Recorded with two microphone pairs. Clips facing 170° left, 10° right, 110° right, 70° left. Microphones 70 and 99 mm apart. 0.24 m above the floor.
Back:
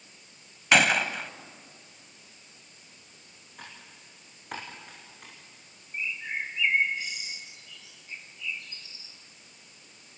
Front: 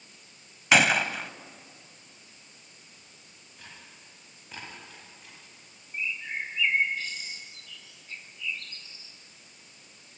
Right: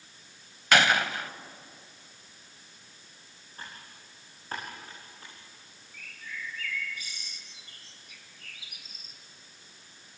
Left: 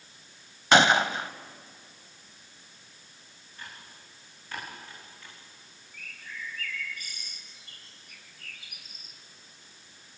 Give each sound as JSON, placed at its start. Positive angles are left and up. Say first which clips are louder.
{"t": 0.7, "sound": "a gunshot", "louder": "even, left 3 dB", "azimuth_deg": 75, "distance_m": 0.7}
{"t": 3.6, "sound": "typing on a keyboard", "louder": "back 3 dB, right 1 dB", "azimuth_deg": -160, "distance_m": 9.0}
{"t": 5.9, "sound": "a bird", "louder": "even, even", "azimuth_deg": 95, "distance_m": 3.0}